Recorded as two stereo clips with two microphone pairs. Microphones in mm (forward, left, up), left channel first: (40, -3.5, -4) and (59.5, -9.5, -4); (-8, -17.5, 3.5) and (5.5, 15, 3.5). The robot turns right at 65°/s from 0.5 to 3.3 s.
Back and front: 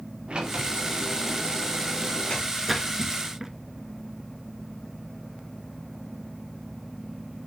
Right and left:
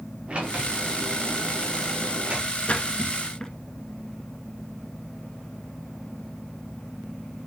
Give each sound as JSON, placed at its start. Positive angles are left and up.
{"t": 0.3, "sound": "a sliding door", "azimuth_deg": 15, "distance_m": 5.0}
{"t": 2.7, "sound": "a splash", "azimuth_deg": -95, "distance_m": 1.8}